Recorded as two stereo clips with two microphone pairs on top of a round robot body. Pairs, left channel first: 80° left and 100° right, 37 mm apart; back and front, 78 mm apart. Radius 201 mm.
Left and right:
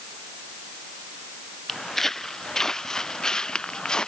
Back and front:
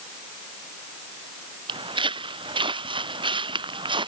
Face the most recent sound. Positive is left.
turn(degrees=10)